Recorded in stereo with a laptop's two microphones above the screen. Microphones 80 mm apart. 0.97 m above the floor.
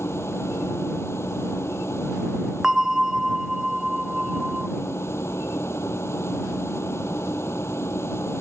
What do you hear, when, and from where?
0.0 s a machine running: 35° left (ahead or behind)
2.6 s a bell: 5° right (ahead or behind)